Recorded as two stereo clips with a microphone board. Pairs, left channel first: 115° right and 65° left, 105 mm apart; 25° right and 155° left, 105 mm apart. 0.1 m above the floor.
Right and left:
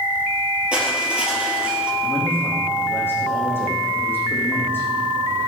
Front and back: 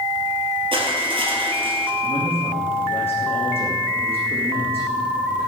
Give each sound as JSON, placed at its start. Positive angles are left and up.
{"t": 0.7, "sound": "crushing", "azimuth_deg": 145, "distance_m": 3.0}
{"t": 2.0, "sound": "a man speaking", "azimuth_deg": -45, "distance_m": 6.0}